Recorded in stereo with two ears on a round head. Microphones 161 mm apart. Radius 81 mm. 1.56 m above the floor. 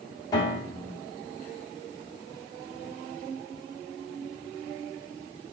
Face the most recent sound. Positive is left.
turn(degrees=20)  # may be behind; listen again after turning